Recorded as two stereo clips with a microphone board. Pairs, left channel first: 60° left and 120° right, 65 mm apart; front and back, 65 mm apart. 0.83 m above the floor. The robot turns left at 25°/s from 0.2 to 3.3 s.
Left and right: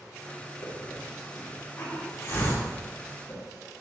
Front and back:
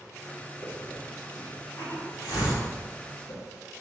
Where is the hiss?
55° left, 2 m; by 3.4 s 10° right, 2 m.